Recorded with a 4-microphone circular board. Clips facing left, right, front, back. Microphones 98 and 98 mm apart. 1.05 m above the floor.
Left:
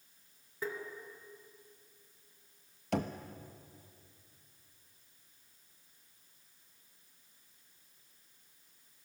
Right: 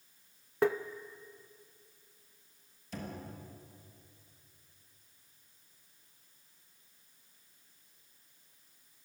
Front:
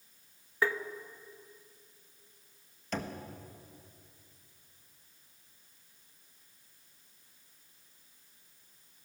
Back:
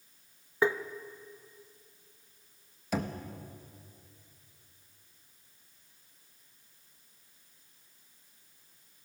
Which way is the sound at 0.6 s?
110° right.